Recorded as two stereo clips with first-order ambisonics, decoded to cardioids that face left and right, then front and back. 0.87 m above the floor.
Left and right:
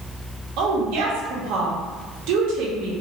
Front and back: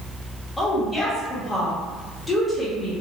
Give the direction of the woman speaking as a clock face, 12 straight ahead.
3 o'clock.